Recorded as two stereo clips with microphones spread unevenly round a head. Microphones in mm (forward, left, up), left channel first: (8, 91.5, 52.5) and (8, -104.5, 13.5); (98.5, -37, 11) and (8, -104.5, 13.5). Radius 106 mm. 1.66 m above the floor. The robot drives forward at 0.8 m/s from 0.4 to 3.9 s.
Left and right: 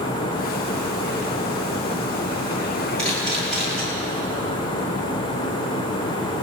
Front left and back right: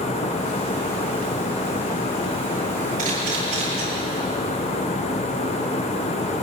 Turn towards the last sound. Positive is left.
turn(degrees=175)